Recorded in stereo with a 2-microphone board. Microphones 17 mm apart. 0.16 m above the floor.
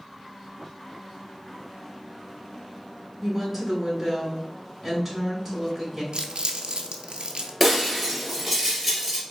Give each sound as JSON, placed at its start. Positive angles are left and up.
{"t": 3.2, "sound": "a woman speaking", "side_deg": 0, "distance_m": 1.6}
{"t": 6.1, "sound": "crumpling", "side_deg": -70, "distance_m": 0.6}
{"t": 7.6, "sound": "breaking glass", "side_deg": 0, "distance_m": 1.6}